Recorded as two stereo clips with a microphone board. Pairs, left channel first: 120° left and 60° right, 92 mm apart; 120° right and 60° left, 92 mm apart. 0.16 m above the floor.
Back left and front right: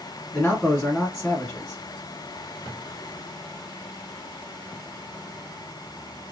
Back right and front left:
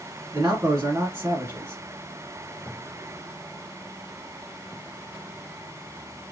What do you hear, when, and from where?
0.3 s a man speaking: 55° left, 1.1 m